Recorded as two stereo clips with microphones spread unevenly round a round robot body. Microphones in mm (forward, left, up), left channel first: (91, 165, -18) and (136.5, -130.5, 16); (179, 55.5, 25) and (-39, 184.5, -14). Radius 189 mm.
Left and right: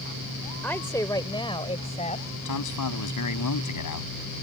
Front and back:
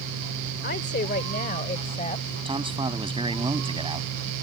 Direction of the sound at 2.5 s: 80° left.